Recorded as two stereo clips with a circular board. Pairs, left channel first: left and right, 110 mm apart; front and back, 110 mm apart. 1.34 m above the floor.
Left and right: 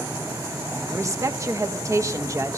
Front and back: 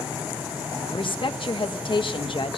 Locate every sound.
0.9 s a woman speaking: 30° right, 1.0 m